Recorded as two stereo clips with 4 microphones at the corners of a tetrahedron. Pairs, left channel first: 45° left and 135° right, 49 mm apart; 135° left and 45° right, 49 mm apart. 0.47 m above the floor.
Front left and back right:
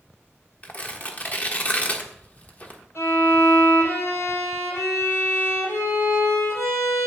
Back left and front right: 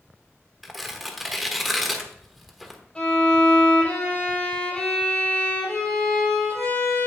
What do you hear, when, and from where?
0.6 s tearing paper: 40° left, 1.2 m
3.0 s a violin: 65° left, 5.5 m